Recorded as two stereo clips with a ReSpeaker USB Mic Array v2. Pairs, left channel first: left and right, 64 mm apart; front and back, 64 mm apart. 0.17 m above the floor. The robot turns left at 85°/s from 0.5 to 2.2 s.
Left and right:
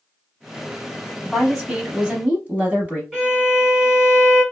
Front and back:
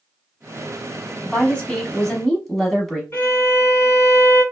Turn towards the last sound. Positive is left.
turn(degrees=-10)